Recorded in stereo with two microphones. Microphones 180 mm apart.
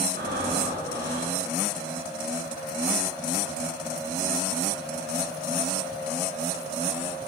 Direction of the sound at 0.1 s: 65° right (ahead or behind).